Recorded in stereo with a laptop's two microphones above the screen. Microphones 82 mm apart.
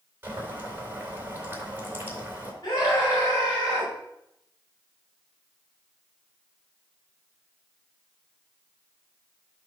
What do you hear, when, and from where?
0.2 s boiling: 25° right (ahead or behind), 4 m
2.6 s a scream: 50° left (ahead or behind), 5.5 m